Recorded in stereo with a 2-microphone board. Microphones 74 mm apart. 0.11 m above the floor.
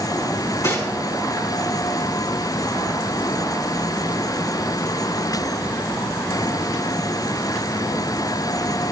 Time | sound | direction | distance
0.3 | cutlery clinking | 55° left (ahead or behind) | 4.5 m